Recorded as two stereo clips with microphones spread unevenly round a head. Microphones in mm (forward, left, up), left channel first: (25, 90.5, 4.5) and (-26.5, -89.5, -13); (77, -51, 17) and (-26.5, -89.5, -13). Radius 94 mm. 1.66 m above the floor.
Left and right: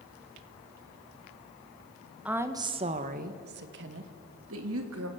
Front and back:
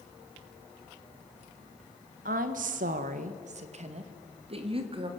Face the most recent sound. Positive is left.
turn(degrees=-120)